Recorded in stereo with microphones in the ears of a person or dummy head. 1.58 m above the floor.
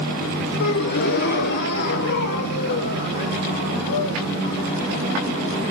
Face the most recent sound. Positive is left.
turn(degrees=60)  # may be behind; listen again after turning